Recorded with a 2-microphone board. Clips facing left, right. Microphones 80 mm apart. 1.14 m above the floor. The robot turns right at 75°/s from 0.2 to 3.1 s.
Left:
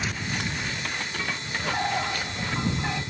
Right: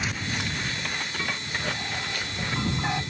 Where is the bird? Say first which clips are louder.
Left 9 dB; 105° left; by 3.0 s 155° right.